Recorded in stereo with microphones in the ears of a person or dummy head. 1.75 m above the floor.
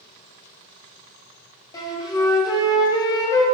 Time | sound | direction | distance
1.7 | a flute | 20° left (ahead or behind) | 0.6 m